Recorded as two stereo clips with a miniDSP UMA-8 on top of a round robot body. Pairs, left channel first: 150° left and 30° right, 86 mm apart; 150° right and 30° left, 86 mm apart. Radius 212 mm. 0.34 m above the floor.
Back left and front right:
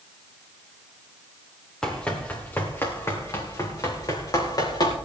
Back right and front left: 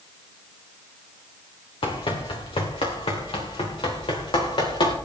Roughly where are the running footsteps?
Behind right.